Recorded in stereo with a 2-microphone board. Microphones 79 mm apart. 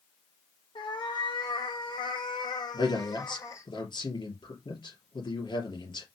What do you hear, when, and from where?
0.8 s a cat meowing: 85° left, 2 m; by 3.7 s 40° left (ahead or behind), 1.3 m
2.7 s a man speaking: 70° left (ahead or behind), 3 m